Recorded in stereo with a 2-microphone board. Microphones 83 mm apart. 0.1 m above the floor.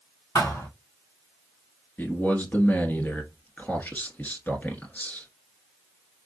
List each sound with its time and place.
0.3 s a thud: 55° left (ahead or behind), 2.5 m
2.0 s a man speaking: 25° left (ahead or behind), 1.2 m